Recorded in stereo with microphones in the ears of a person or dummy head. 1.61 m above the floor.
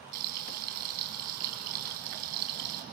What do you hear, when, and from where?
0.1 s frying: 55° right (ahead or behind), 4 m